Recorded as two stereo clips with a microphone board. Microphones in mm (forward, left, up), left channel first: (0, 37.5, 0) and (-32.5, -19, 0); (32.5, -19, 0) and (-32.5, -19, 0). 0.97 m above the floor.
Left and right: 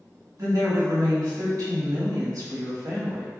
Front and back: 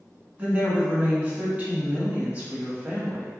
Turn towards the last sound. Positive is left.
turn(degrees=-115)